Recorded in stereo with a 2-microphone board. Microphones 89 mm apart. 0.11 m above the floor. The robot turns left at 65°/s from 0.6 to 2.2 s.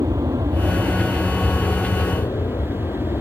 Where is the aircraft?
45° right (ahead or behind); by 3.2 s 35° left (ahead or behind).